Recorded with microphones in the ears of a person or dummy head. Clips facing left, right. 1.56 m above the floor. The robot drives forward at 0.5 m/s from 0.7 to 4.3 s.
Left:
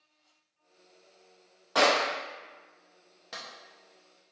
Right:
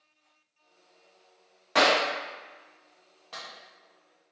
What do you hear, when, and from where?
1.8 s a clap: 30° right (ahead or behind), 1.1 m
3.3 s a clap: 25° left (ahead or behind), 0.7 m